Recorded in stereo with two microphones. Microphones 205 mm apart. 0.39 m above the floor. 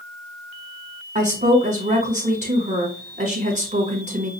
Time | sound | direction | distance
1.1 | a woman speaking | 35° right (ahead or behind) | 1.3 m